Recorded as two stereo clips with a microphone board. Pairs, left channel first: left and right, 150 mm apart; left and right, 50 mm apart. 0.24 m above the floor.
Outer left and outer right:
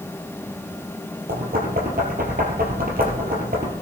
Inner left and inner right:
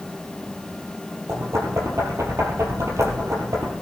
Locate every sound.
1.3 s knocking: 70° right (ahead or behind), 3.5 m